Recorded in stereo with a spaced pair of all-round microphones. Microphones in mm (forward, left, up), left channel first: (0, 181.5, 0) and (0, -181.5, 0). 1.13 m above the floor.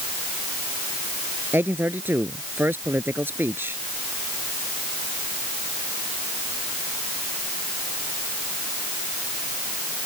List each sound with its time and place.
1.5 s a man speaking: 5° right (ahead or behind)